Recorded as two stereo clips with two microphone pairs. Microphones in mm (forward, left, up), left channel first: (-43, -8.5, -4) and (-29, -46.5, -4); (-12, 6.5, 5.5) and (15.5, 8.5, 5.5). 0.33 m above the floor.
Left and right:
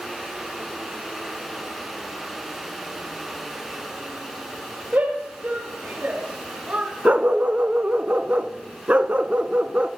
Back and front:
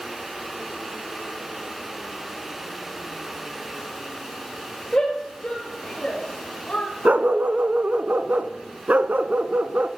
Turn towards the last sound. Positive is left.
turn(degrees=-20)